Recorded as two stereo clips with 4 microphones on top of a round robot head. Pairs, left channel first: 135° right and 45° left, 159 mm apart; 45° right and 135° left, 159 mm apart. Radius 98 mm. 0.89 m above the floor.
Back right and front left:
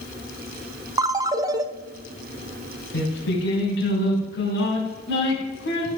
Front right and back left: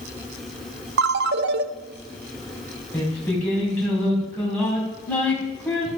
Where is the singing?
125° right, 4.5 m.